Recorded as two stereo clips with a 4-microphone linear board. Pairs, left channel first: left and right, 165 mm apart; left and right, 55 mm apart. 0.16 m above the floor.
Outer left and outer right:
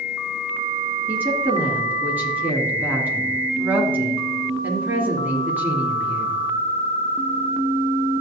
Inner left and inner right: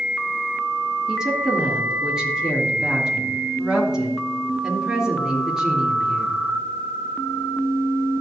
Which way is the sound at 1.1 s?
10° right (ahead or behind).